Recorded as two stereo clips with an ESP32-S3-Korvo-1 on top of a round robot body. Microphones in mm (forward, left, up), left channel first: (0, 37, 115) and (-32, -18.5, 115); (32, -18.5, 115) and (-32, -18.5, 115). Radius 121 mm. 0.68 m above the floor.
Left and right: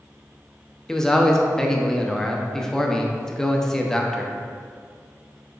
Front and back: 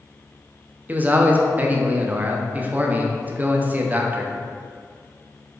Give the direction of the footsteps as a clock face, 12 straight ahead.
I don't hear footsteps.